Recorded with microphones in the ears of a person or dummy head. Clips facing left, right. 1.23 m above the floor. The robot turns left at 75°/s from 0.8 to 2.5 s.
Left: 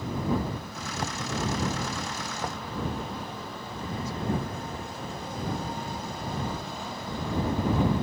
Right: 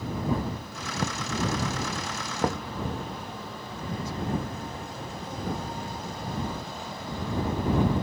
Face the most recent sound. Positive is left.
turn(degrees=-55)  # may be behind; listen again after turning